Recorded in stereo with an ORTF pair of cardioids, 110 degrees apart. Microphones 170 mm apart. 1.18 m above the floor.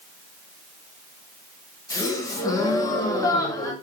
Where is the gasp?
20° left, 1.3 m.